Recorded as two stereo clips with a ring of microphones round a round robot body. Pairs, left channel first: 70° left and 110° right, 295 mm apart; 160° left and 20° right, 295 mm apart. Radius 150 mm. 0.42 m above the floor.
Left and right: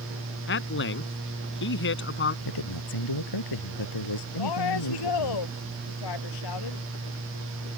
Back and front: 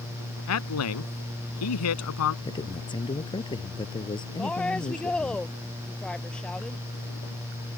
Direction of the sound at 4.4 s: 70° left.